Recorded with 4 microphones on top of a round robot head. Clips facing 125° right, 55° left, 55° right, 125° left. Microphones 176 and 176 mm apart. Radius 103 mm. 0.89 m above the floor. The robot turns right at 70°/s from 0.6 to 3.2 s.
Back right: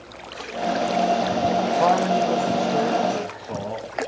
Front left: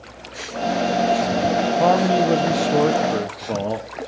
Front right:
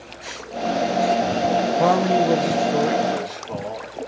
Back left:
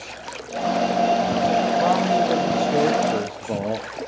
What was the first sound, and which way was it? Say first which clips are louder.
A man speaking: front left 4 dB, front right 2 dB; 15° right.